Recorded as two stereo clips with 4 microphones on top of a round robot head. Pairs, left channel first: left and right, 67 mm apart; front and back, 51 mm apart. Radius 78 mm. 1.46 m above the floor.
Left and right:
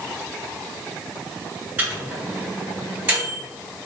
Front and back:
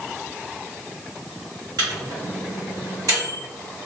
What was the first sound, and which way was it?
A microwave, 155° right.